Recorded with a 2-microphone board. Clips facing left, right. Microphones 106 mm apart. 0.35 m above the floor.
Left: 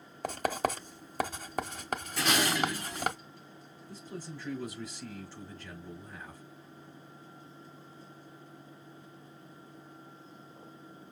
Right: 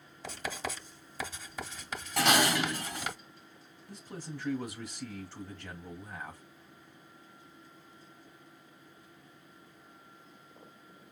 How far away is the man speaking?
About 2.5 m.